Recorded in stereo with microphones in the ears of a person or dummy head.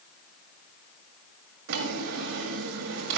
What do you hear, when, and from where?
1.7 s a drawer: 65° right (ahead or behind), 1.6 m